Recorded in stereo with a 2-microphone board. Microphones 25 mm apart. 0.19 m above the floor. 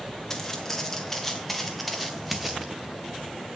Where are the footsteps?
15° left (ahead or behind), 2.5 m; by 2.7 s 10° right (ahead or behind), 1.5 m.